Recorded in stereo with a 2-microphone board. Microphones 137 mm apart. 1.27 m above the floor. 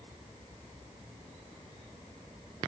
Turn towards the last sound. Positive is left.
No sound to turn to.